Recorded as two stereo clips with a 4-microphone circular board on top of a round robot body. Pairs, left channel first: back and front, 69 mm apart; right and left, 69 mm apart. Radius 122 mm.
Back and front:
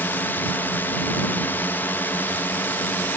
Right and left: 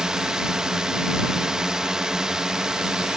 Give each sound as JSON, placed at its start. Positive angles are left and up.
{"t": 0.0, "sound": "a drone", "azimuth_deg": 160}